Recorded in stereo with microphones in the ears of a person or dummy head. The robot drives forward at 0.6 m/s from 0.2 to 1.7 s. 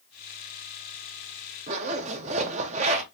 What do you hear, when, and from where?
1.7 s a zipper: 30° right (ahead or behind), 0.6 m